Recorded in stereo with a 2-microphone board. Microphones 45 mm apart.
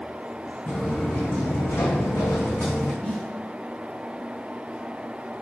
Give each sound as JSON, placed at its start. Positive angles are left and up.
{"t": 0.7, "sound": "footsteps", "side_deg": 35, "distance_m": 1.1}
{"t": 3.0, "sound": "a snare drum", "side_deg": 15, "distance_m": 1.6}